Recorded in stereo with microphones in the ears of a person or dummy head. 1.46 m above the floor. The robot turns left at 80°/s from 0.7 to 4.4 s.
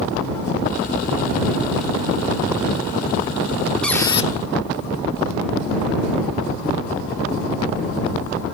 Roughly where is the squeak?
Behind.